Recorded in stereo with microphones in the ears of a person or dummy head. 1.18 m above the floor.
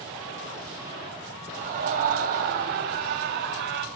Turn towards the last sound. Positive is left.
turn(degrees=-65)  # may be behind; listen again after turning